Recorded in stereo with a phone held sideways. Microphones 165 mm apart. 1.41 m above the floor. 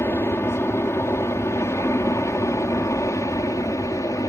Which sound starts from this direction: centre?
An aircraft, at 0.0 s.